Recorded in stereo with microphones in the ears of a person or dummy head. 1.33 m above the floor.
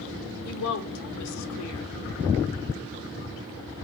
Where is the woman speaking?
85° left, 0.8 m.